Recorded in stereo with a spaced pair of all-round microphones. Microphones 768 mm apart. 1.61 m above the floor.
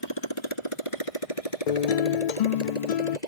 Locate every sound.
0.0 s a motorcycle: 30° left (ahead or behind); by 3.3 s 60° left (ahead or behind)
1.7 s a guitar: 60° left (ahead or behind)